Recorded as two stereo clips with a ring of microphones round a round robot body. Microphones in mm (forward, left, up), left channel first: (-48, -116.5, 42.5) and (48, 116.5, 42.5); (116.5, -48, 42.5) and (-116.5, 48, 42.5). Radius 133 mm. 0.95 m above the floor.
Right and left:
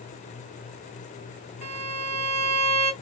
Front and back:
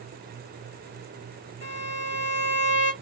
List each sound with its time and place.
1.6 s a violin: 40° left, 1.8 m